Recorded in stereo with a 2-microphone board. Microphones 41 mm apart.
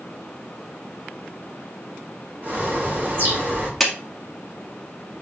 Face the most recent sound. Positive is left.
turn(degrees=-5)  # may be behind; listen again after turning